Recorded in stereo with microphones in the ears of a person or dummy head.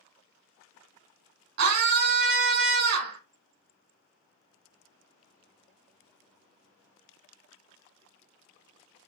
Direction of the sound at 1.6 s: 60° right (ahead or behind).